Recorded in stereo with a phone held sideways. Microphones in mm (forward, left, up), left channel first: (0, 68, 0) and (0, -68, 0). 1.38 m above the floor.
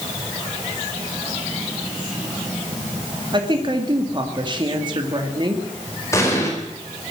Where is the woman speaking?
35° right (ahead or behind), 2.5 m.